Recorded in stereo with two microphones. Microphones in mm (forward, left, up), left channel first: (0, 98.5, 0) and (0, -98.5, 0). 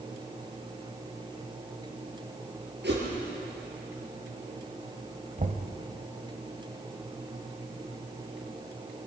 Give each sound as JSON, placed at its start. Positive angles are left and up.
{"t": 2.8, "sound": "a whoosh", "side_deg": -65, "distance_m": 6.5}
{"t": 5.4, "sound": "knocking", "side_deg": -45, "distance_m": 1.4}